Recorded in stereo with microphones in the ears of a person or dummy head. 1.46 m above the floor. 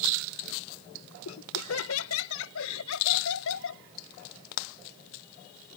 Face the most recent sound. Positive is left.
turn(degrees=80)